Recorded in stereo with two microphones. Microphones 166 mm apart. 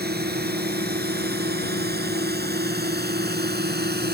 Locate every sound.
0.0 s a drone: 75° right (ahead or behind); by 4.2 s 80° right